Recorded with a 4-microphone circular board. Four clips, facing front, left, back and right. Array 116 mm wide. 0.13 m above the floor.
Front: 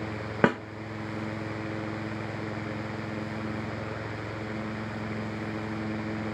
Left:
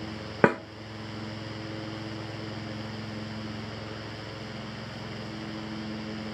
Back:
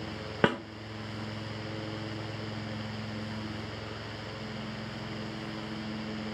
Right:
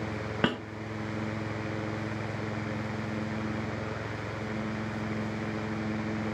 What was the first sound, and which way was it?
A snare drum, 65° left.